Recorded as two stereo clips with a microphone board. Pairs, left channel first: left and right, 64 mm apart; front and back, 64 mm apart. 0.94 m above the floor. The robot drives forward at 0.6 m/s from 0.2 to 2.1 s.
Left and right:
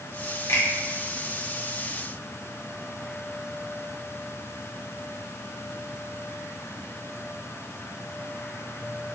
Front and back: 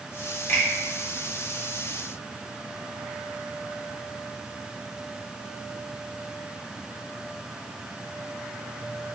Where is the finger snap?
45° left, 0.9 m; by 0.7 s 50° left, 0.9 m.